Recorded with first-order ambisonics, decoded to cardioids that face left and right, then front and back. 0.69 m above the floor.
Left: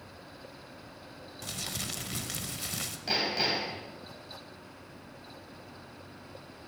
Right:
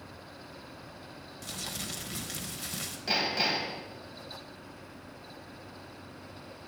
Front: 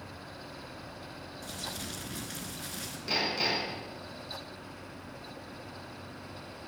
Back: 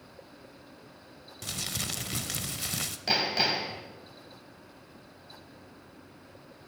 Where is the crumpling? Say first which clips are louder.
Left 1 dB, back 6 dB; 165° left, 0.7 m.